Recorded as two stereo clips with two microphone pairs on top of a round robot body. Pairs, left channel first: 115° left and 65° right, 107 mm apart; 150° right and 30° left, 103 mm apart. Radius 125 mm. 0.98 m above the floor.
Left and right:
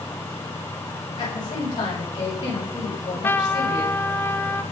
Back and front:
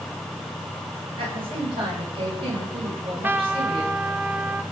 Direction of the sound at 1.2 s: 65° left.